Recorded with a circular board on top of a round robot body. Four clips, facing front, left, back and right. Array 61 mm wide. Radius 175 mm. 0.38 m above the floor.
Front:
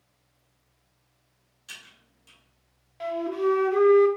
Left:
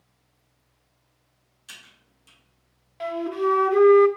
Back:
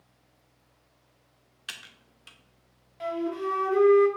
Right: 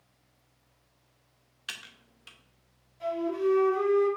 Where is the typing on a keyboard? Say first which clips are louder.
Right 4 dB, back 3 dB; 135° right, 0.9 m.